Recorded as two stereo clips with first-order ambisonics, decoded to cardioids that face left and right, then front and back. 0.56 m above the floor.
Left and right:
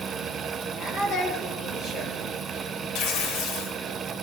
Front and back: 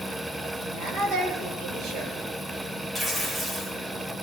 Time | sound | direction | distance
0.6 | a woman speaking | 135° left | 9.5 m
3.0 | tearing paper | 100° left | 2.0 m